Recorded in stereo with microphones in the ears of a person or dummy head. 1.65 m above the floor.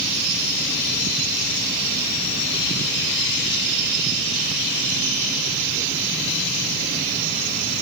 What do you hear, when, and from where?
Only background noise.